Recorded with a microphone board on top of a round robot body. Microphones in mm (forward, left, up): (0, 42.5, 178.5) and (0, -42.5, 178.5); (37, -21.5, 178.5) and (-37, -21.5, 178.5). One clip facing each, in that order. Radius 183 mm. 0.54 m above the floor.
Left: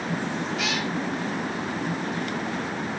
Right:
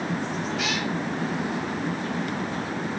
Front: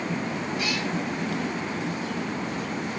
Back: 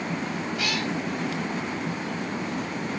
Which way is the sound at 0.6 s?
175° left.